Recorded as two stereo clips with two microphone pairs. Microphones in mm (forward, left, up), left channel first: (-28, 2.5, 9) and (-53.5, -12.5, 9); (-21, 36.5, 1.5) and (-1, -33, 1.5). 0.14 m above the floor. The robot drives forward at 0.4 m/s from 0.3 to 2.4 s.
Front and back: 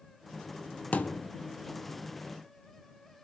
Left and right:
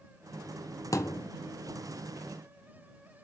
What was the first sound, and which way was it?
A thud, 65° left.